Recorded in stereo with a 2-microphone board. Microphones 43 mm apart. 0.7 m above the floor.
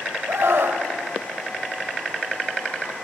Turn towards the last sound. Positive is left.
turn(degrees=-75)  # may be behind; listen again after turning